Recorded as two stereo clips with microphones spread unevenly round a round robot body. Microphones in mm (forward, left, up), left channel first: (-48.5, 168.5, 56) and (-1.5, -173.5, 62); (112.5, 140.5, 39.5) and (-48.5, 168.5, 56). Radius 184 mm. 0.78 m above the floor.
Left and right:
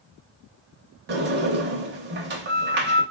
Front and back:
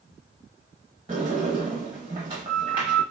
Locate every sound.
1.1 s a sliding door: 135° right, 0.7 m